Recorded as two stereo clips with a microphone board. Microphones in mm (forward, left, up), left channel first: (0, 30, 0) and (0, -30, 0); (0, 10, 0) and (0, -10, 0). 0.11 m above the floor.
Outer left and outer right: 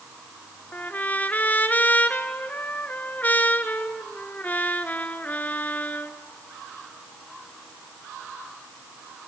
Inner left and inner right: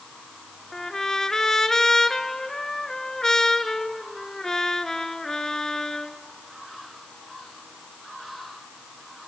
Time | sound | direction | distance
0.7 | a trumpet | 30° left (ahead or behind) | 1.1 m